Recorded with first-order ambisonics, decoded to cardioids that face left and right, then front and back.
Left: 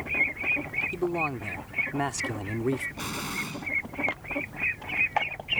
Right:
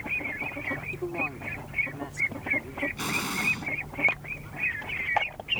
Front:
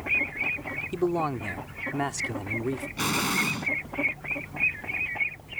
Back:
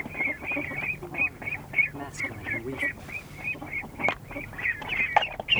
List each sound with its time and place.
0.9 s a man speaking: 20° left; by 2.9 s 75° left
3.0 s an explosion: 5° right